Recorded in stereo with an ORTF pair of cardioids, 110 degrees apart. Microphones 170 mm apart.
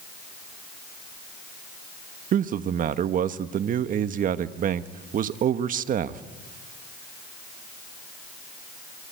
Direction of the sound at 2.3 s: 55° right.